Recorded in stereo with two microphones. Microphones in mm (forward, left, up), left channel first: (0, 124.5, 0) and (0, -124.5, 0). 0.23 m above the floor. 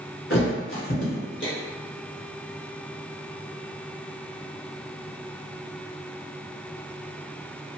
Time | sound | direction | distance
0.3 | a thud | 55° left (ahead or behind) | 1.3 m